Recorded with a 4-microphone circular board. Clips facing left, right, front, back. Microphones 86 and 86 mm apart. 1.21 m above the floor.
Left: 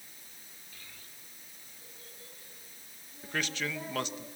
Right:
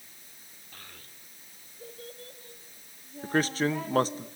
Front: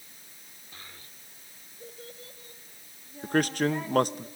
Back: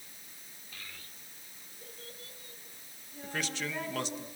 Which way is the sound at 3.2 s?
40° right.